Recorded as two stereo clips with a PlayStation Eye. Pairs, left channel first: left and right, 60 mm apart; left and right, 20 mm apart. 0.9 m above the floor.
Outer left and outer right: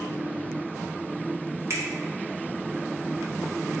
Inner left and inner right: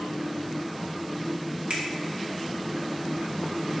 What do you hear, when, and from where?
1.7 s a finger snap: 50° right (ahead or behind), 0.7 m